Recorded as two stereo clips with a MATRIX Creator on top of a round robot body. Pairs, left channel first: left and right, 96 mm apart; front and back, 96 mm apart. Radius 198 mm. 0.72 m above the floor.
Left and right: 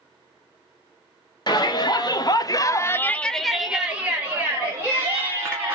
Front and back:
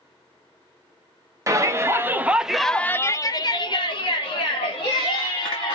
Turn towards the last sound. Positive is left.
turn(degrees=-30)